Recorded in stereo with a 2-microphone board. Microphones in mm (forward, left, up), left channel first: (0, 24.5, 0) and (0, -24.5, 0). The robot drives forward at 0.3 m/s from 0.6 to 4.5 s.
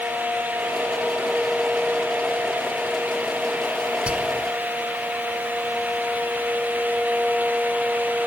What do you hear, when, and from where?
4.1 s whispering: 25° right (ahead or behind), 1.2 m